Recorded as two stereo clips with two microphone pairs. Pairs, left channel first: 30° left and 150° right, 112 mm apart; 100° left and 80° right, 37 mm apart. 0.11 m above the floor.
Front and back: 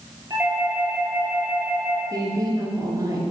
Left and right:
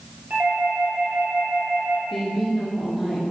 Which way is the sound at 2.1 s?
165° right.